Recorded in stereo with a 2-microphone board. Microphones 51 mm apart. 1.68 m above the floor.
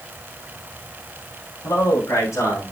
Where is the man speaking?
85° left, 4 m; by 2.7 s 80° left, 5 m.